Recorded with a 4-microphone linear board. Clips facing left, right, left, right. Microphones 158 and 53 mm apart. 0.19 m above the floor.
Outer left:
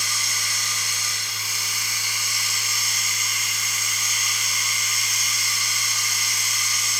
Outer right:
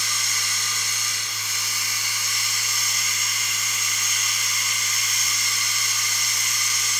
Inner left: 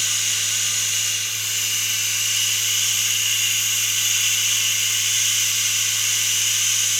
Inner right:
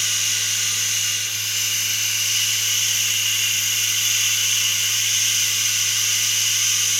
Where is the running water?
10° left (ahead or behind), 2 m.